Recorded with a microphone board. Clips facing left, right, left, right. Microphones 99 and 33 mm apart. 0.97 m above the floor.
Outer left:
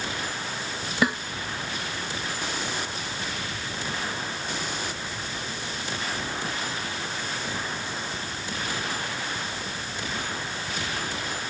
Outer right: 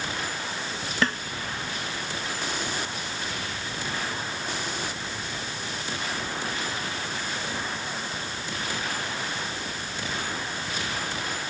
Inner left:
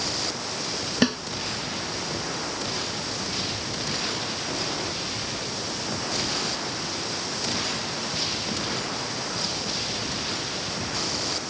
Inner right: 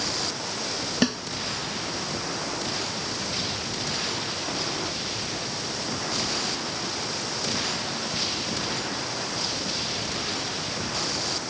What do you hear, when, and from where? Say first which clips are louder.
1.0 s a snare drum: outer left 2 dB, inner left 2 dB; 10° left (ahead or behind)